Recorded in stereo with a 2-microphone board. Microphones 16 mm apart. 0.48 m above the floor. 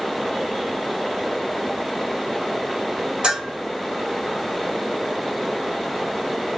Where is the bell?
55° right (ahead or behind), 2 m.